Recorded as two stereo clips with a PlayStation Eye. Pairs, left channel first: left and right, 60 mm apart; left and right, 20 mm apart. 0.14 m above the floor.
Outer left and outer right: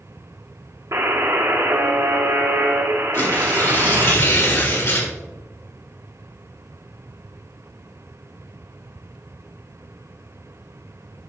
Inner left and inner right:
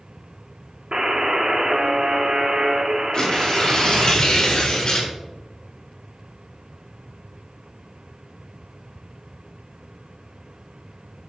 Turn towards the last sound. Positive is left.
turn(degrees=50)  # may be behind; listen again after turning